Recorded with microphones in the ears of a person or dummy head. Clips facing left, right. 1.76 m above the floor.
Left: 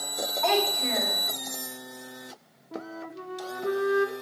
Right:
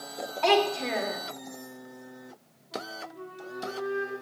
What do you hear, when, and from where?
0.4 s a child speaking: 45° right (ahead or behind), 3 m
2.7 s a flute: 70° left (ahead or behind), 1.1 m